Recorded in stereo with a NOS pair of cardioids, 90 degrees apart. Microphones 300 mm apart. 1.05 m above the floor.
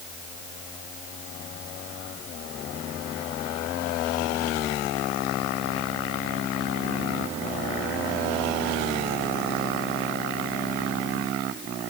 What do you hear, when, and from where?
Only background noise.